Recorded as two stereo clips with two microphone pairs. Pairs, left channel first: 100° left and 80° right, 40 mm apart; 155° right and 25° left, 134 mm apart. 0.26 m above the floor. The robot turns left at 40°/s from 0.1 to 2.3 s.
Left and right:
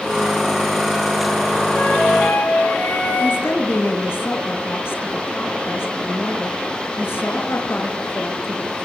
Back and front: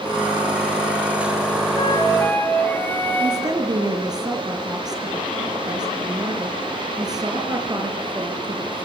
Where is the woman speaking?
85° left, 5 m.